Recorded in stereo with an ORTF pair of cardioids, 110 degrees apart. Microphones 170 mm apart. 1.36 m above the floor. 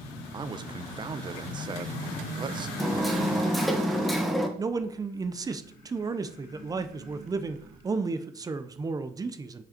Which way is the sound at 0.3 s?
25° right.